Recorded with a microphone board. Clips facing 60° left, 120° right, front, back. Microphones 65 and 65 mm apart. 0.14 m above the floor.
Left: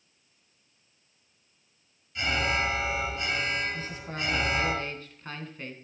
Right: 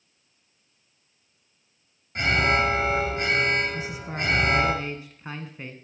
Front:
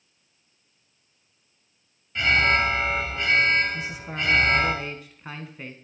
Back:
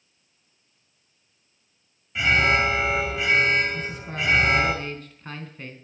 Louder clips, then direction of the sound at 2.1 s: Right 6 dB, back 1 dB; 100° right.